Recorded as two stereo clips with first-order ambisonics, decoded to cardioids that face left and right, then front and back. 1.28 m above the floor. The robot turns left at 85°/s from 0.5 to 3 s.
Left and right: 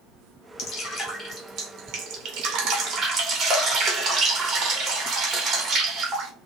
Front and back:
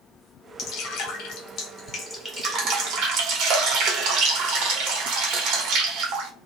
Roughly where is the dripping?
Ahead left.